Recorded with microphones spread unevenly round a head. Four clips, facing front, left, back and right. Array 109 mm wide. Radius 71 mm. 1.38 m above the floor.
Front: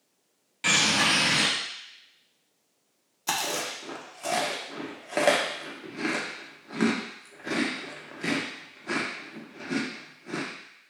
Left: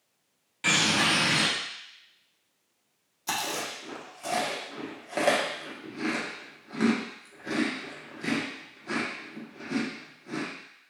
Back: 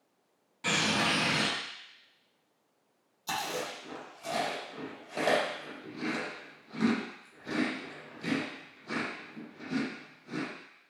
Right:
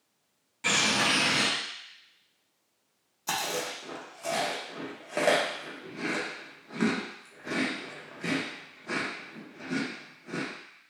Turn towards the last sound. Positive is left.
turn(degrees=-5)